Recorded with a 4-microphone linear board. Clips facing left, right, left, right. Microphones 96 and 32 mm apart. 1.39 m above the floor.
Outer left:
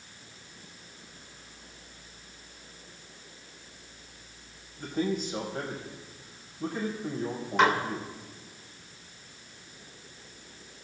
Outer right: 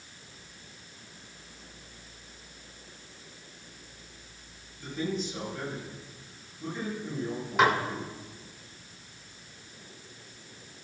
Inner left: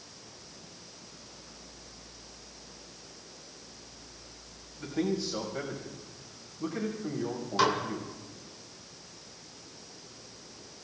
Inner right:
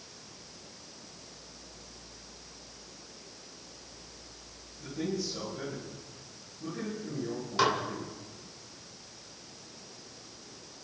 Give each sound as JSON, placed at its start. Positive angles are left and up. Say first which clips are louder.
{"t": 4.8, "sound": "a man speaking", "louder": "outer left 3 dB, inner left 3 dB", "side_deg": 50, "distance_m": 7.5}
{"t": 7.6, "sound": "dishes clattering", "louder": "even, inner left 1 dB", "side_deg": -5, "distance_m": 3.0}